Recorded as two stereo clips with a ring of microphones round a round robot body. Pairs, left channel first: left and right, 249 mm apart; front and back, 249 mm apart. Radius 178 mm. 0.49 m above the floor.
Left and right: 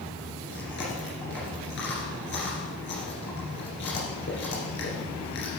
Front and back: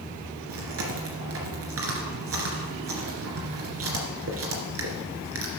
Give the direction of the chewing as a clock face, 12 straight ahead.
7 o'clock.